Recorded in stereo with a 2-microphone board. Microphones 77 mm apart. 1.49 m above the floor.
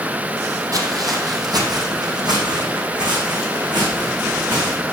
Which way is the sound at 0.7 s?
50° right (ahead or behind).